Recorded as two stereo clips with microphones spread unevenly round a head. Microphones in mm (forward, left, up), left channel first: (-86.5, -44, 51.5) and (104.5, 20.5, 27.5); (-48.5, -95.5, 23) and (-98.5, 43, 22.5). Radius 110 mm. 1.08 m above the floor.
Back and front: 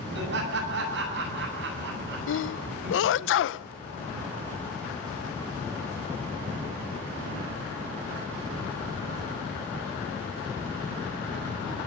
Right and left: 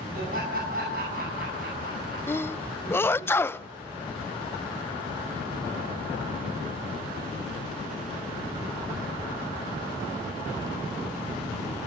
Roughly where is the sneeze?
Behind right.